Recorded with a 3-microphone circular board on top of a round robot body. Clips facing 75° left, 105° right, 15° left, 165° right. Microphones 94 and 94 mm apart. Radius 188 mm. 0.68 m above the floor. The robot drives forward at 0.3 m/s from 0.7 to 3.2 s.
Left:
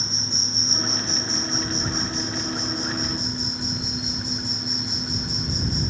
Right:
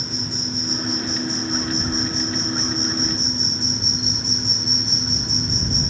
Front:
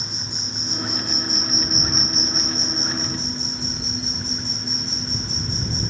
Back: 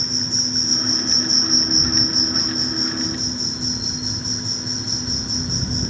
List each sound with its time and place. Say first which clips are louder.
0.0 s an insect: right 5 dB, back 6 dB; 65° left, 1.4 m; by 5.9 s 140° left, 1.5 m